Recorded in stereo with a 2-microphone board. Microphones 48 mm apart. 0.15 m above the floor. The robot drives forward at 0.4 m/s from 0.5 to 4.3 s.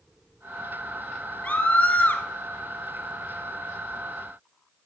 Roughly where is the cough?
No cough in this recording.